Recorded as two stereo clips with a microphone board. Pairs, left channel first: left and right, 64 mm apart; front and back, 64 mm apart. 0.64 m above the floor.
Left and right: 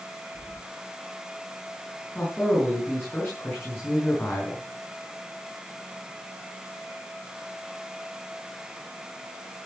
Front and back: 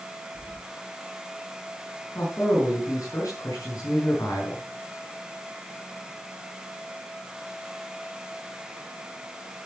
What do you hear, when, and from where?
0.3 s keys jangling: 95° left, 5 m
2.1 s a man speaking: 30° left, 7.5 m